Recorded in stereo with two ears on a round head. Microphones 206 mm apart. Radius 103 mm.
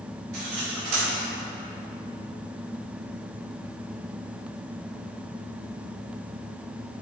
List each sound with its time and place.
0.3 s cutlery clinking: 65° right (ahead or behind), 1.5 m